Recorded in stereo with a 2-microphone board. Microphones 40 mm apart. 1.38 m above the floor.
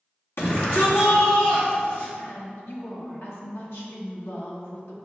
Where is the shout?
70° left (ahead or behind), 1.9 m.